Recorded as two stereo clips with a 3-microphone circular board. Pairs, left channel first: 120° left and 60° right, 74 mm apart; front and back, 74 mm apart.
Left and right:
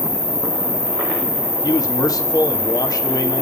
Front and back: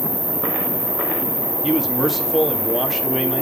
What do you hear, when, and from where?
0.0 s an insect: 135° left, 6 m
1.6 s a man speaking: 90° left, 2 m